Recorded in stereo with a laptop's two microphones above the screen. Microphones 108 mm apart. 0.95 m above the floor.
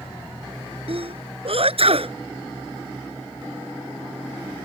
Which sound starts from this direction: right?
A sneeze, at 0.9 s.